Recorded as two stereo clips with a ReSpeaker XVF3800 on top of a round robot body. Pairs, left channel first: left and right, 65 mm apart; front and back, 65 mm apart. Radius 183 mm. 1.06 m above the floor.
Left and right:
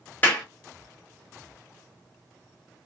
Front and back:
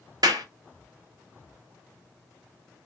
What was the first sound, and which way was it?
A clap, 155° left.